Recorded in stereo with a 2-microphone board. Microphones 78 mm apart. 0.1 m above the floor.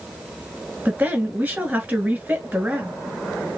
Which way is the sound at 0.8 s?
20° right (ahead or behind).